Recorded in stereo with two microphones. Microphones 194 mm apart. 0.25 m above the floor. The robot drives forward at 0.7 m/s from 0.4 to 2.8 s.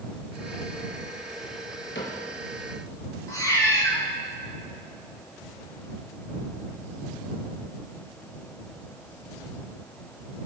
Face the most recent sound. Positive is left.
turn(degrees=15)  # may be behind; listen again after turning